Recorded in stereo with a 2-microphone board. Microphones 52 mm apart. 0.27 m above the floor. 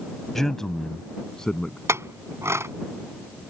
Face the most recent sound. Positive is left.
turn(degrees=-60)  # may be behind; listen again after turning